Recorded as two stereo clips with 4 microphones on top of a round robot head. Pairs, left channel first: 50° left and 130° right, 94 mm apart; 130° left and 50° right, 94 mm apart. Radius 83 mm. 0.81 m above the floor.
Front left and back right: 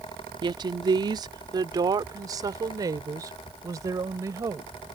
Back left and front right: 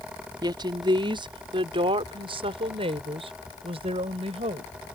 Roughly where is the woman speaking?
Right.